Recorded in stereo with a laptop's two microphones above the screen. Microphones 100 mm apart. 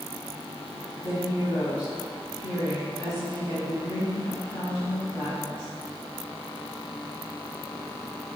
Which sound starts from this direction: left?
A woman speaking, at 1.0 s.